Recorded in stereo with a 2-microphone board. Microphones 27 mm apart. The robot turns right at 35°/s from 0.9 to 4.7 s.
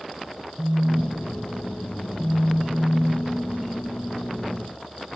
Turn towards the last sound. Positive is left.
turn(degrees=125)